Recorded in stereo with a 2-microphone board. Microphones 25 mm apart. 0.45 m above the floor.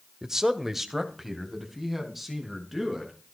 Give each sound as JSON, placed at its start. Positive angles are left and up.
{"t": 0.2, "sound": "a man speaking", "side_deg": -20, "distance_m": 1.1}